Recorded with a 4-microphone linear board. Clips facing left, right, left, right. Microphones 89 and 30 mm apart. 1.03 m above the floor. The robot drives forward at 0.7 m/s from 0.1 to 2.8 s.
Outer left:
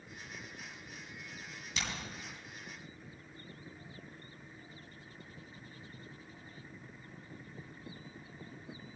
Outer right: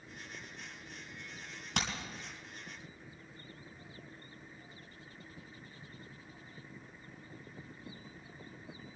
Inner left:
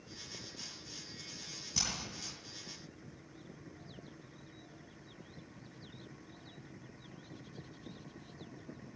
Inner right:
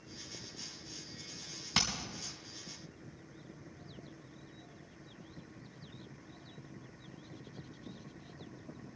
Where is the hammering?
60° right (ahead or behind), 3 m.